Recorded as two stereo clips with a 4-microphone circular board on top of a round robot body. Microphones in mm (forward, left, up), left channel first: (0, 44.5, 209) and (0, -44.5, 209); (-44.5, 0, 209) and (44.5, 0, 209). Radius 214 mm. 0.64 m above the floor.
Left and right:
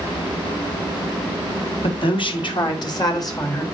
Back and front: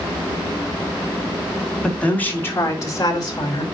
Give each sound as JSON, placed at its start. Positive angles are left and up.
{"t": 1.8, "sound": "a woman speaking", "azimuth_deg": 100, "distance_m": 2.5}